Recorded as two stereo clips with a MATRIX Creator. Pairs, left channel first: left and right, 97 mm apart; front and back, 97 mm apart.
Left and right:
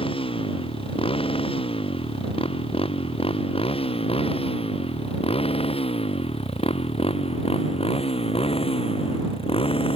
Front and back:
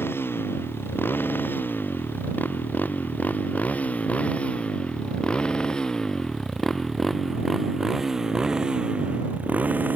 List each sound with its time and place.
0.0 s a motorcycle: 70° left; by 10.0 s 110° left